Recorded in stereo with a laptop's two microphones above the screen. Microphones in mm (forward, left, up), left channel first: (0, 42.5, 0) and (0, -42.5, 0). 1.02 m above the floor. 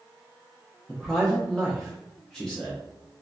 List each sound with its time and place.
0.9 s a man speaking: 5° left (ahead or behind), 0.7 m